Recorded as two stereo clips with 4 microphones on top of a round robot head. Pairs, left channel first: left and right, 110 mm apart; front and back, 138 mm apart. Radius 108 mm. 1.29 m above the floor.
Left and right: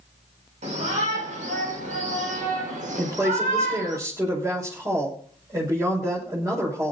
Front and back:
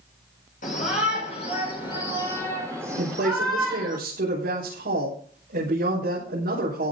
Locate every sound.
0.6 s a shout: 45° right, 4.5 m; by 4.0 s 95° right, 5.5 m
3.0 s a woman speaking: 150° right, 6 m